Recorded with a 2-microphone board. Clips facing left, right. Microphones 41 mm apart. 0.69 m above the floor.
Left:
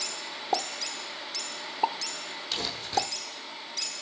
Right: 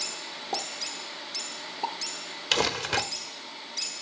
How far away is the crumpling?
About 1.3 m.